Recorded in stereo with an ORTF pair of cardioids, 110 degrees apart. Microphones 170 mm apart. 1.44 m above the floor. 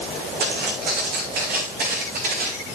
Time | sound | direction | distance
0.4 | footsteps | 65° right | 5 m